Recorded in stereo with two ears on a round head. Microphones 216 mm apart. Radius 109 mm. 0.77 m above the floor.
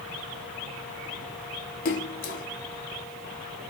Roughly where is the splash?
Left.